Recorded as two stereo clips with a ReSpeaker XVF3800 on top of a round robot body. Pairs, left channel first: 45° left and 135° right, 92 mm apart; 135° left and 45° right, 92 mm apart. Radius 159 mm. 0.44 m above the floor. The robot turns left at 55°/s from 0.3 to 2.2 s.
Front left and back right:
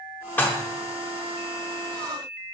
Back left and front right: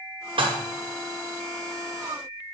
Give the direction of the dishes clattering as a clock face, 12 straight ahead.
1 o'clock.